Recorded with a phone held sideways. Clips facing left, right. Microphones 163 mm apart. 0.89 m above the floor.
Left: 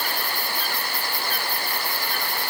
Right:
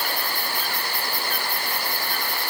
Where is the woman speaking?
I don't hear a woman speaking.